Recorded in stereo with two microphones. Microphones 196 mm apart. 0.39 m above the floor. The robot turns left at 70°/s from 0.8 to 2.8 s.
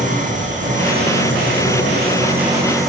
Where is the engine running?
40° right, 8 m; by 2.9 s straight behind, 8 m.